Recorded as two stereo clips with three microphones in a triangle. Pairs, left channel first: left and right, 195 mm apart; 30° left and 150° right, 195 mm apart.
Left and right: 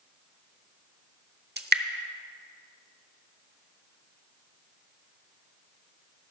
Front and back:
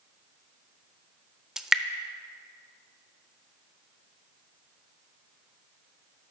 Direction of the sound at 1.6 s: 60° right.